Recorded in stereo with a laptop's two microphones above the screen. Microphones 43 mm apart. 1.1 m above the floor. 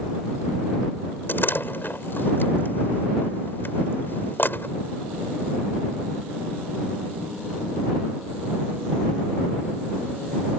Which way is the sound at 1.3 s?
55° left (ahead or behind).